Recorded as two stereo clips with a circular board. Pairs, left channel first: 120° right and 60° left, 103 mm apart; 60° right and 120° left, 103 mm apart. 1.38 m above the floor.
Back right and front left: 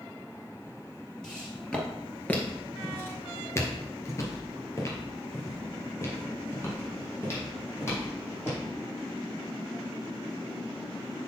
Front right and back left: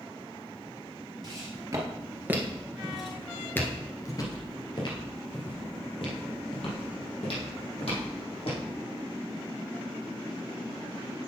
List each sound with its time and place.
1.2 s footsteps: 155° left, 2 m; by 8.6 s 55° right, 4.5 m